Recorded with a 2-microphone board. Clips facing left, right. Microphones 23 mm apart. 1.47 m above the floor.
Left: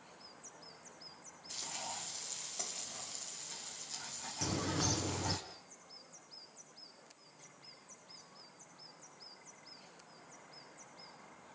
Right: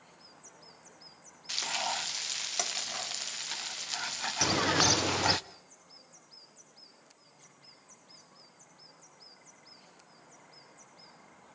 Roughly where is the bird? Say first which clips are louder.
Right 10 dB; right.